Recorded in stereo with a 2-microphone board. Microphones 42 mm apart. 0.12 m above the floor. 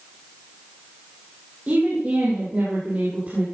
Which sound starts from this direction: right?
A woman speaking, at 1.7 s.